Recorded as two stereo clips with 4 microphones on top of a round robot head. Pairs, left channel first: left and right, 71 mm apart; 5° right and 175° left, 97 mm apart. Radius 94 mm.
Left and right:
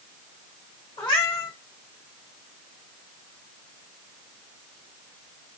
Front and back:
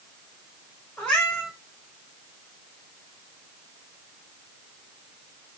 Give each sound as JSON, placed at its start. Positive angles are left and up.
{"t": 1.0, "sound": "a cat meowing", "azimuth_deg": 70, "distance_m": 1.7}